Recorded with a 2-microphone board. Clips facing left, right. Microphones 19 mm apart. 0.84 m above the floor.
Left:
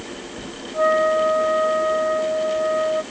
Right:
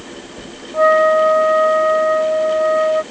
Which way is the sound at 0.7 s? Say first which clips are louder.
Right 6 dB; 25° right (ahead or behind).